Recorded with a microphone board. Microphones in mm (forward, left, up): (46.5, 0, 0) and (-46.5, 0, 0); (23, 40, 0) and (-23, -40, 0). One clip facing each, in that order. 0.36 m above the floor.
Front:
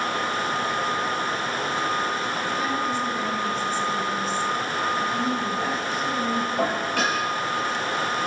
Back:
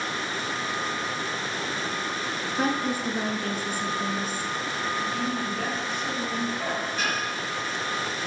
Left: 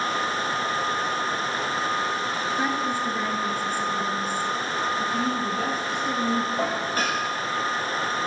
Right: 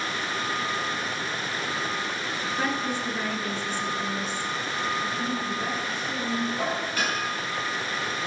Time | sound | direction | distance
2.6 | a woman speaking | 140° left | 5.5 m
5.0 | a woman speaking | 85° left | 9 m
6.6 | dishes clattering | 10° left | 8.5 m